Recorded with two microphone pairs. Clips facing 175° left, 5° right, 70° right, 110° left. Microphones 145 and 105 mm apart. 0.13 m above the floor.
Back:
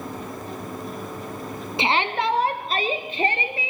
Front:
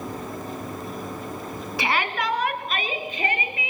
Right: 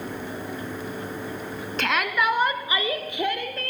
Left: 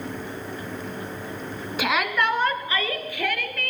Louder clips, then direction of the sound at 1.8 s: Back 3 dB, left 1 dB; straight behind.